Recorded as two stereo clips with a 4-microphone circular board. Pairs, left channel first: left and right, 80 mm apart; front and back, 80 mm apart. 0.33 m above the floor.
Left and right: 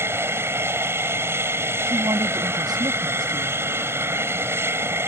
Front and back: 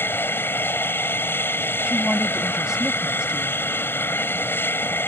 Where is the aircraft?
50° right.